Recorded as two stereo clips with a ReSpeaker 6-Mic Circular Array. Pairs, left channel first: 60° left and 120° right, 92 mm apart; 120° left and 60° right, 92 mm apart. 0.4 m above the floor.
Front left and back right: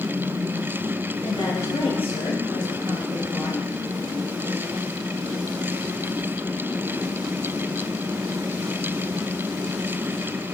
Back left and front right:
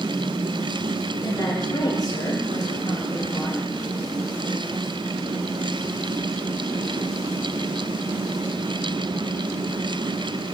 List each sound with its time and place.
1.2 s a woman speaking: 70° left, 6 m